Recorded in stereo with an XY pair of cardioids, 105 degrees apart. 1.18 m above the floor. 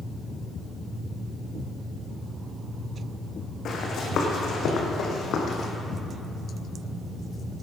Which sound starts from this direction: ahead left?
Running footsteps, at 3.6 s.